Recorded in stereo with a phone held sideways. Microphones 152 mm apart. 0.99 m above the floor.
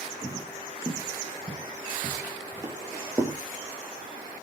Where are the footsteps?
25° right (ahead or behind), 1.3 m; by 3.4 s 15° right (ahead or behind), 1.3 m.